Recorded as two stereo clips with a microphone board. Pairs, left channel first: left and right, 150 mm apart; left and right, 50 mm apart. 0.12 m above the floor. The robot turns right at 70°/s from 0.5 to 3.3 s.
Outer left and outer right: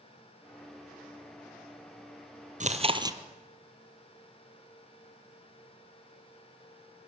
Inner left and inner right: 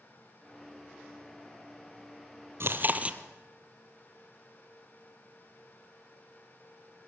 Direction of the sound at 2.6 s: 60° right.